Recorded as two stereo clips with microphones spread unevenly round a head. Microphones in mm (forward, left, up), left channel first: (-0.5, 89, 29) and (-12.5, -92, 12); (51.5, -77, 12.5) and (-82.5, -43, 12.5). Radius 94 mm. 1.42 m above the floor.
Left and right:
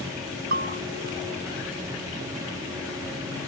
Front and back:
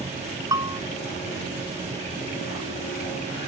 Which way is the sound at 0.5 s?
135° right.